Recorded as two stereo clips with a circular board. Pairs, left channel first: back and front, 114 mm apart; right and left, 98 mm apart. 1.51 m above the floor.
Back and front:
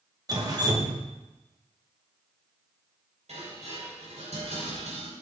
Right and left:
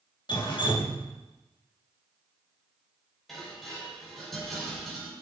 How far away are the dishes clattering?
About 4.5 m.